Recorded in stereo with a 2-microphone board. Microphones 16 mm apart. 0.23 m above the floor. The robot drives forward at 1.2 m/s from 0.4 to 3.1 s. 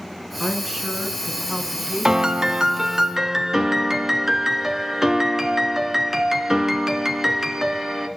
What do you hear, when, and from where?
0.4 s a woman speaking: 25° right (ahead or behind), 3 m; by 3.0 s 45° right (ahead or behind), 1.8 m
2.0 s a piano: 50° right (ahead or behind), 0.7 m; by 8.1 s 30° right (ahead or behind), 1.3 m